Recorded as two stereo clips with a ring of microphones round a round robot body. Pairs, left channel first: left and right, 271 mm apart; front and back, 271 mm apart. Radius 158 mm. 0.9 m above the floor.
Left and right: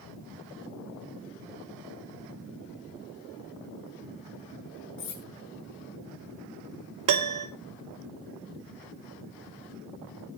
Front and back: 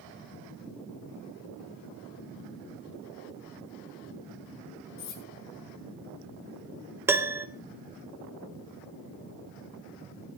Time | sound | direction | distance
5.0 | cutlery clinking | 35° left | 7.5 m
7.1 | a piano | 100° right | 1.7 m